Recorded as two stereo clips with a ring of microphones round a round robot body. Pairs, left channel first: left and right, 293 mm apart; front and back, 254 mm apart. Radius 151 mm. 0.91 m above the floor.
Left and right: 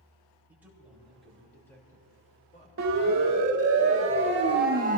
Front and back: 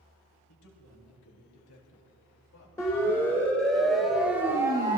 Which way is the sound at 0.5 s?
5° right.